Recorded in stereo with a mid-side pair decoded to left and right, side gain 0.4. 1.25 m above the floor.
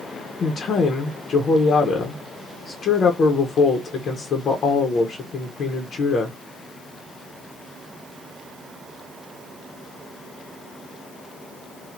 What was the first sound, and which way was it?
A woman speaking, 65° left.